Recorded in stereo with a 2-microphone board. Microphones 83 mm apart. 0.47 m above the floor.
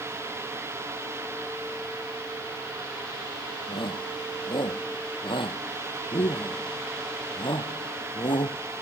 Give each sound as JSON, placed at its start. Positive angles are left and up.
{"t": 3.7, "sound": "a shout", "side_deg": 75}